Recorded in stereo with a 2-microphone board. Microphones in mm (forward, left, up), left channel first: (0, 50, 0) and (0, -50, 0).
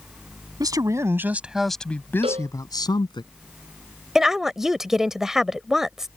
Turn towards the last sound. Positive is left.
turn(degrees=-5)  # may be behind; listen again after turning